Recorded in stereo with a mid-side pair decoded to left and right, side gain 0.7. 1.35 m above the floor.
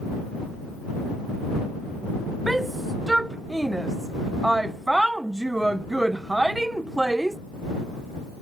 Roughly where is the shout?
Ahead.